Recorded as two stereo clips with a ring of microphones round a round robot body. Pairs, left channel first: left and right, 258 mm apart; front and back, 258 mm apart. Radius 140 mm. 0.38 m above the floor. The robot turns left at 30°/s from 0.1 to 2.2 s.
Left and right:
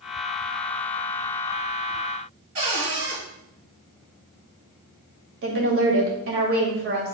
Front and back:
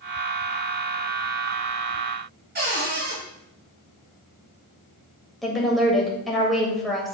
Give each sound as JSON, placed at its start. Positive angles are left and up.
{"t": 2.5, "sound": "a cupboard door", "azimuth_deg": -130, "distance_m": 4.0}
{"t": 5.4, "sound": "a woman speaking", "azimuth_deg": -90, "distance_m": 2.0}